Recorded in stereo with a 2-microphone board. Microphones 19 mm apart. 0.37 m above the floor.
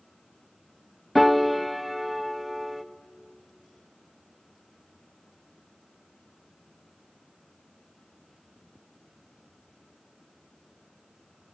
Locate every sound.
1.1 s a piano: 5° left (ahead or behind), 0.6 m